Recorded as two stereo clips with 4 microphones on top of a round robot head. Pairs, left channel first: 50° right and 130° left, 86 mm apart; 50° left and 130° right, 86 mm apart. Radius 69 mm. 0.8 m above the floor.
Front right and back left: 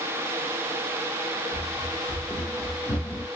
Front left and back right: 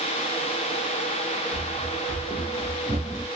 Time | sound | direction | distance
1.5 | running footsteps | 100° right | 1.3 m